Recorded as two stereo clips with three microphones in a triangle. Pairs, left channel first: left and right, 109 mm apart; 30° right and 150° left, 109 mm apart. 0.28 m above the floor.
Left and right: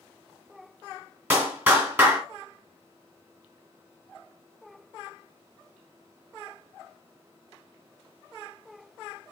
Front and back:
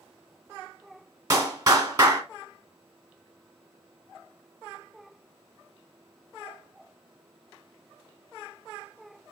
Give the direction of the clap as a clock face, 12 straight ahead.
5 o'clock.